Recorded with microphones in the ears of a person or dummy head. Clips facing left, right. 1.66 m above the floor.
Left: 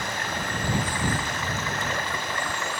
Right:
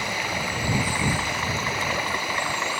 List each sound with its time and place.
0.0 s running water: 10° right (ahead or behind)